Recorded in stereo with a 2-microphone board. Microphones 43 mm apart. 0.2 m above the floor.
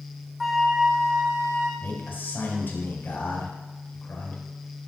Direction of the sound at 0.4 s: 5° right (ahead or behind).